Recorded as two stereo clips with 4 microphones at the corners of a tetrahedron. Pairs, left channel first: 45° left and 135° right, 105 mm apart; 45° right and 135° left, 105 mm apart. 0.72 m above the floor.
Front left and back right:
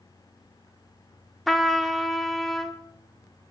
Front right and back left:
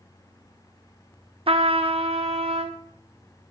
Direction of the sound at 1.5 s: 135° left.